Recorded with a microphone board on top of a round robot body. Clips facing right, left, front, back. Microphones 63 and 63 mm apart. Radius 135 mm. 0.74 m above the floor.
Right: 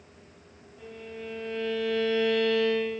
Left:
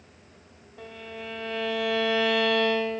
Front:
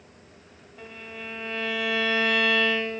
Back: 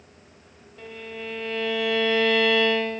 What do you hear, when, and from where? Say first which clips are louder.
0.8 s a violin: left 1 dB, back 4 dB; 80° left, 2.0 m